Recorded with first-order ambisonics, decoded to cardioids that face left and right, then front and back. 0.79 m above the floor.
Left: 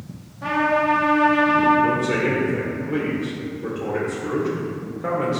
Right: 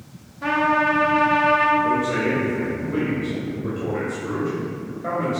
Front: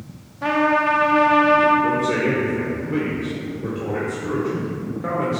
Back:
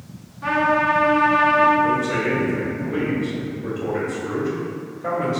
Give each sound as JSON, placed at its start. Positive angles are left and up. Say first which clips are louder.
{"t": 0.4, "sound": "a trumpet", "louder": "right 1 dB, even", "azimuth_deg": -10, "distance_m": 1.4}
{"t": 1.8, "sound": "a man speaking", "louder": "left 1 dB, front 1 dB", "azimuth_deg": 55, "distance_m": 1.9}